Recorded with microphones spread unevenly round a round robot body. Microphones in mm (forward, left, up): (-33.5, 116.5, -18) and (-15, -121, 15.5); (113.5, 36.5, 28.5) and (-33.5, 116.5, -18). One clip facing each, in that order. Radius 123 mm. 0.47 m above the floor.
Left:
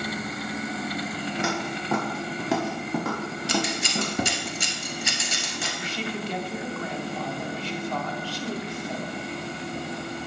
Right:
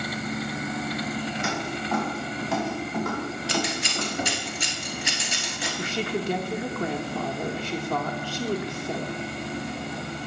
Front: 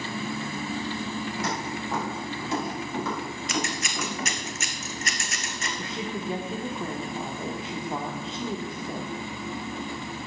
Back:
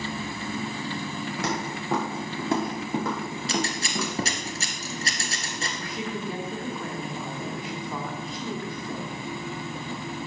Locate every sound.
1.4 s footsteps: 130° left, 4.5 m; by 4.5 s 85° left, 3.5 m
3.5 s scissors: 90° left, 1.7 m
5.8 s a woman speaking: 105° right, 1.0 m